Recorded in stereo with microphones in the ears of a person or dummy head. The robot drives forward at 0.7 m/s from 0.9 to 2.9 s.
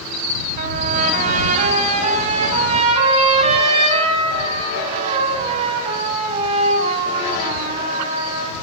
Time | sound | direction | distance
0.6 | a trumpet | 45° right (ahead or behind) | 5 m